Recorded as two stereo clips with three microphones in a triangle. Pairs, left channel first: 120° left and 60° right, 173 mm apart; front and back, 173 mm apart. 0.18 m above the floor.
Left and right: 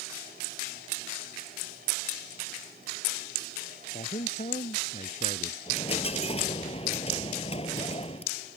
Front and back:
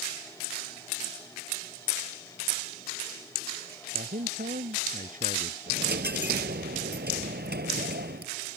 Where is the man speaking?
160° left; by 5.6 s 155° left.